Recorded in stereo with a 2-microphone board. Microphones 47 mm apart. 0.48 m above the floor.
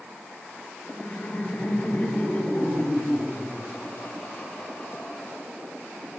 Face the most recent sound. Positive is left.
turn(degrees=35)  # may be behind; listen again after turning